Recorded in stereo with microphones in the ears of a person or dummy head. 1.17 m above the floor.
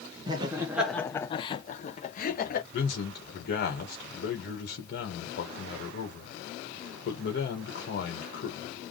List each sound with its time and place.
0.3 s laughter: 25° right (ahead or behind), 0.6 m; by 2.6 s 45° left (ahead or behind), 1.1 m
2.7 s a man speaking: 55° left (ahead or behind), 1.5 m